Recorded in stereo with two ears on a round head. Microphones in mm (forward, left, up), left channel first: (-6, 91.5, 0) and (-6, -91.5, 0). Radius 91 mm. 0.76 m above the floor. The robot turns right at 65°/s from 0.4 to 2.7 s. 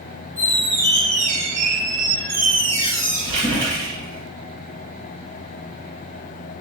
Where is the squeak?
170° left, 1.0 m; by 4.2 s 40° right, 1.0 m.